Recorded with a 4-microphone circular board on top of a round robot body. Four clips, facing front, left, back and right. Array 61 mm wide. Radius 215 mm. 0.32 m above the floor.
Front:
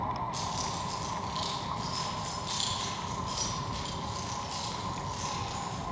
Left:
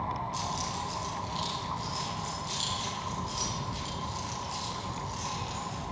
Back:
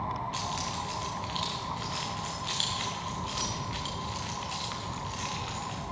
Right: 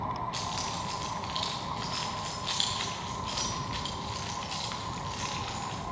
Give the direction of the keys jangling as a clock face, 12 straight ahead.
4 o'clock.